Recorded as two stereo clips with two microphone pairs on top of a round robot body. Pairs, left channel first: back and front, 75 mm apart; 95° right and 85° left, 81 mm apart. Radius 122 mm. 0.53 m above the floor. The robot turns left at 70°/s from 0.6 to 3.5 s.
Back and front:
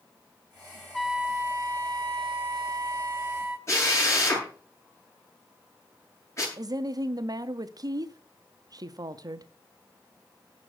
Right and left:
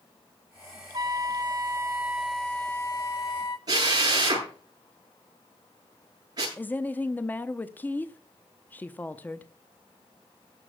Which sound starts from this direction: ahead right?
A woman speaking, at 6.6 s.